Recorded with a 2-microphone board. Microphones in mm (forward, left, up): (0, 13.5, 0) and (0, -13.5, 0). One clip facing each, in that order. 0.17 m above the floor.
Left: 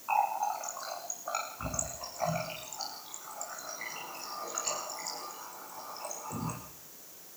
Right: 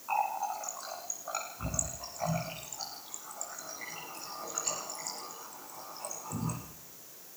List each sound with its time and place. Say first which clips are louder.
0.1 s a running tap: left 2 dB; 20° left (ahead or behind), 8.5 m